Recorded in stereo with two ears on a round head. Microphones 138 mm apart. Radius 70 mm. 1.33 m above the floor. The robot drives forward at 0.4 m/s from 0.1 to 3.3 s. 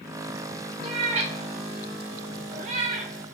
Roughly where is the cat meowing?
Right.